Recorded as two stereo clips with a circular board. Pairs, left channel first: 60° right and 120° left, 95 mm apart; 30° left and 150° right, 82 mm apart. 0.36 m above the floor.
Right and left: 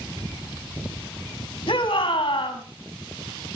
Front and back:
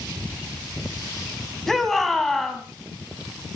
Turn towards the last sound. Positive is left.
turn(degrees=-55)